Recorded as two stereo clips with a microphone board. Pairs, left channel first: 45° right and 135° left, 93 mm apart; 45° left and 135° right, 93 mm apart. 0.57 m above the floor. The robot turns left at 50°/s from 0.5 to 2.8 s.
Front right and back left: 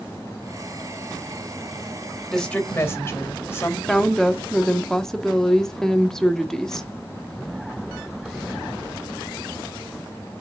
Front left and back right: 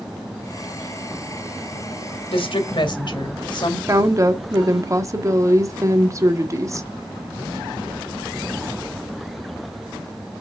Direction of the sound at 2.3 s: 40° left.